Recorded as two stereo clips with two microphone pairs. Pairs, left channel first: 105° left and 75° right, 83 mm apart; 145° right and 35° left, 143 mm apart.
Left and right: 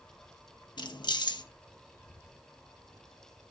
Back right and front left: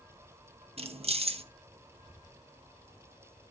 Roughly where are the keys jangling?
Left.